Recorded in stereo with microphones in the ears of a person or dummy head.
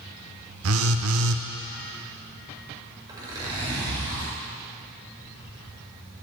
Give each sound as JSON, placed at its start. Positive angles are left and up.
{"t": 0.6, "sound": "a phone buzzing", "side_deg": -80, "distance_m": 1.1}
{"t": 3.1, "sound": "a zipper", "side_deg": -20, "distance_m": 6.0}